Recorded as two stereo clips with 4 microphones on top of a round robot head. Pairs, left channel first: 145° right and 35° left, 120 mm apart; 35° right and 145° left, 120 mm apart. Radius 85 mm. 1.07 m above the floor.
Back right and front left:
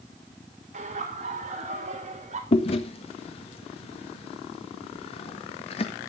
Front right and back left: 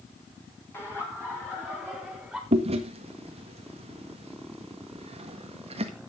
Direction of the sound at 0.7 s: 35° left.